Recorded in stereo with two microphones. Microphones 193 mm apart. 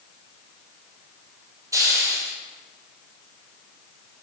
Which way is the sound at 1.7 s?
15° right (ahead or behind).